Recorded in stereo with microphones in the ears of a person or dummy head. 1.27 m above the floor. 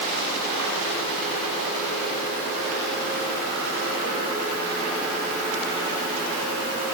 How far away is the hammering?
No hammering in this recording.